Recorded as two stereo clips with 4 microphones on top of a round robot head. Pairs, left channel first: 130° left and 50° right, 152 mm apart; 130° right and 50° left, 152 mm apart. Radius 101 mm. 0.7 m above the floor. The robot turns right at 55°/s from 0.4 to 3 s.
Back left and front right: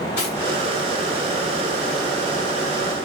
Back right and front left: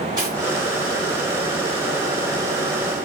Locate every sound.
0.2 s cutlery clinking: 120° left, 3.5 m